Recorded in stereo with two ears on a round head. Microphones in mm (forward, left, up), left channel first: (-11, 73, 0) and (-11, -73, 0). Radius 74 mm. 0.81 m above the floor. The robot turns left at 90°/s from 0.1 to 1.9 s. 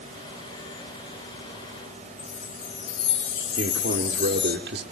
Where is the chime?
85° left, 4 m.